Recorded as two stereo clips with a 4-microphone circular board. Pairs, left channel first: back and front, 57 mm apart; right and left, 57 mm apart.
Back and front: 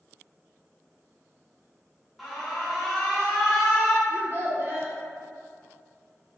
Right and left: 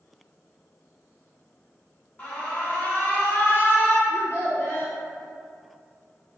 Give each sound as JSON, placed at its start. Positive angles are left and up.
{"t": 2.2, "sound": "an alarm", "azimuth_deg": -90, "distance_m": 0.7}
{"t": 4.1, "sound": "a child speaking", "azimuth_deg": -45, "distance_m": 1.5}